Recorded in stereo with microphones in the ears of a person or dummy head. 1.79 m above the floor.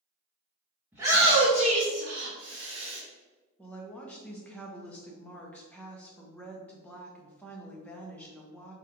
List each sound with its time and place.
0.9 s a shout: 10° right (ahead or behind), 0.8 m; by 3.0 s 75° right (ahead or behind), 1.1 m
3.6 s a woman speaking: 10° left (ahead or behind), 0.6 m